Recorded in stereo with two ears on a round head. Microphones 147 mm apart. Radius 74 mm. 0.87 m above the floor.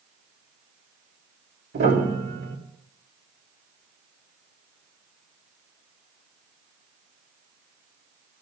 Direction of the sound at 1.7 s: 55° right (ahead or behind).